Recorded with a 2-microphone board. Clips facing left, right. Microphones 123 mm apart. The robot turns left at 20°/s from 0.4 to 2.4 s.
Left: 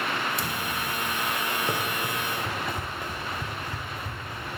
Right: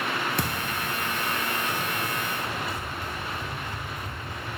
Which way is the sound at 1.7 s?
55° left (ahead or behind).